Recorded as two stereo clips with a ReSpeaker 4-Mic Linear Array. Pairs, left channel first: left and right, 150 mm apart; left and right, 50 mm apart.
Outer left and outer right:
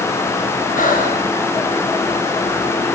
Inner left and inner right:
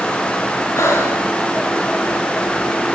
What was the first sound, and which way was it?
Breathing, 65° left (ahead or behind).